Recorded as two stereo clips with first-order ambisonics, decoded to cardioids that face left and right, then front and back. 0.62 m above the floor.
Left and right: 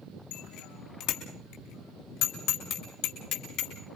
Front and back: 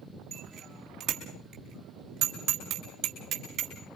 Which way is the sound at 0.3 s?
115° left.